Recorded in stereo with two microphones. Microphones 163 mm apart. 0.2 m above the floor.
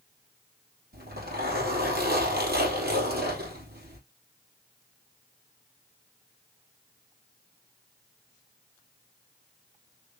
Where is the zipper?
75° right (ahead or behind), 3 m.